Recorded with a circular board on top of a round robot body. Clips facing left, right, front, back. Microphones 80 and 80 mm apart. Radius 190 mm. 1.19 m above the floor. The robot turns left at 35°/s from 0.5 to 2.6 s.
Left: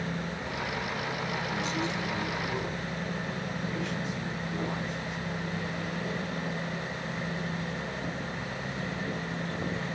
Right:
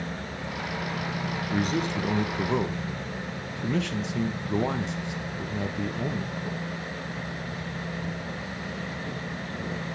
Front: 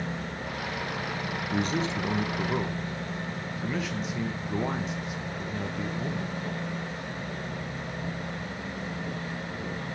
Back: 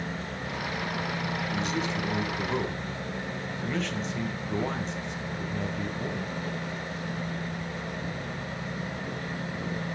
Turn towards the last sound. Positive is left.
turn(degrees=-85)